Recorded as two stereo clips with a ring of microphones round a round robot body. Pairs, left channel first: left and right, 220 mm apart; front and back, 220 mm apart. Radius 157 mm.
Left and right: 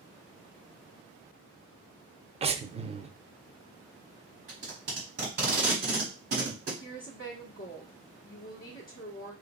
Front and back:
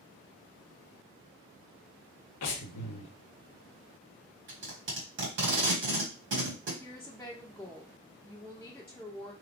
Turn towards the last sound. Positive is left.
turn(degrees=75)